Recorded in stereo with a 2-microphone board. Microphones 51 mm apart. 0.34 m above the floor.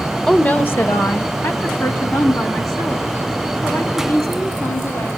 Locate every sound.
0.3 s a woman speaking: 15° left (ahead or behind), 0.8 m; by 5.1 s 80° left, 6 m